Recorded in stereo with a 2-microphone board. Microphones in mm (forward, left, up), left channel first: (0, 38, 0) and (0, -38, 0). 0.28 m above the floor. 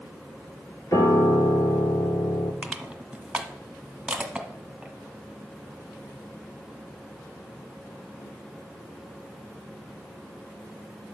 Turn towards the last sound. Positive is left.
turn(degrees=-5)  # may be behind; listen again after turning